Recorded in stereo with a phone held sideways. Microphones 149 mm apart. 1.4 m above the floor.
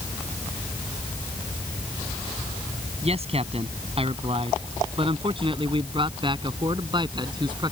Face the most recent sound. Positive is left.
turn(degrees=-30)  # may be behind; listen again after turning